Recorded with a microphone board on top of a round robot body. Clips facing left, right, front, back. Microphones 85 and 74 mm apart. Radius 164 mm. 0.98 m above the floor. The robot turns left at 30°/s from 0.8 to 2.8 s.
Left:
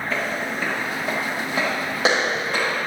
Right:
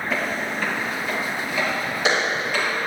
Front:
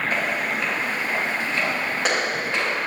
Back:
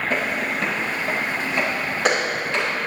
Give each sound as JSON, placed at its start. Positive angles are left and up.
{"t": 0.1, "sound": "footsteps", "azimuth_deg": -175, "distance_m": 2.0}